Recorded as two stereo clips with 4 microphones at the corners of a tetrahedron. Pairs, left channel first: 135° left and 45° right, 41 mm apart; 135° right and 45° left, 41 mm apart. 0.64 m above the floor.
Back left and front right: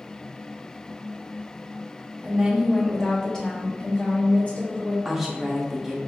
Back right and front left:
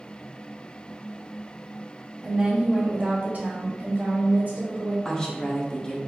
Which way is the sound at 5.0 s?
115° right.